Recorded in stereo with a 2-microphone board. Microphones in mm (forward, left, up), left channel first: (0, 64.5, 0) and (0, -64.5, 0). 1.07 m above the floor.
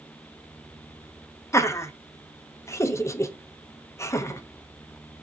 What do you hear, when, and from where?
1.5 s laughter: 20° left (ahead or behind), 0.6 m